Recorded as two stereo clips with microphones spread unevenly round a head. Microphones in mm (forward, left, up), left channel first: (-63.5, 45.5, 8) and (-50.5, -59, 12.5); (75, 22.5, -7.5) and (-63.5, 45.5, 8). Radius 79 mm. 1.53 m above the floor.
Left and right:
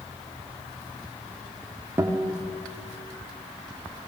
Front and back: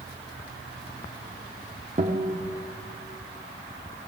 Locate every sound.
2.0 s a guitar: 145° right, 2 m